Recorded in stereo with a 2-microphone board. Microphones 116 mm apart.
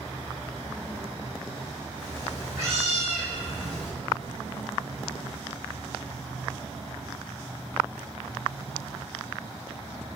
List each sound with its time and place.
2.0 s a cat meowing: 40° right (ahead or behind), 2 m; by 3.9 s 10° right (ahead or behind), 2 m